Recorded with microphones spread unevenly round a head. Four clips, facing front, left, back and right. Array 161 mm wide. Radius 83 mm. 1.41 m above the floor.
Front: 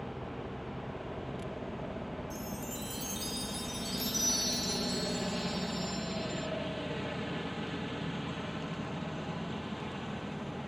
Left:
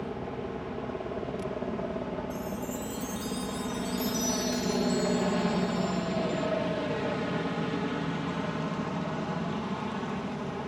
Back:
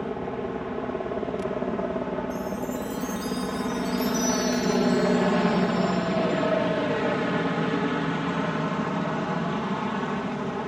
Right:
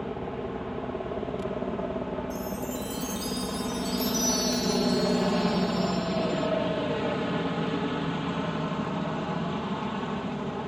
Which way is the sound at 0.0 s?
170° right.